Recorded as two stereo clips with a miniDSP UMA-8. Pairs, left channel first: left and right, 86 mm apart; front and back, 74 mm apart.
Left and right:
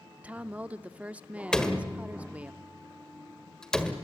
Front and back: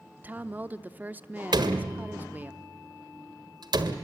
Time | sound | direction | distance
0.2 | a woman speaking | 145° right | 0.7 m
1.5 | a door slam | 170° left | 1.5 m